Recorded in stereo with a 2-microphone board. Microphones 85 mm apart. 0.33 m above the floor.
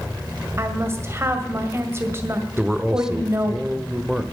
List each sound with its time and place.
0.6 s a woman speaking: 30° right (ahead or behind), 2.0 m
2.6 s a man speaking: 10° right (ahead or behind), 0.9 m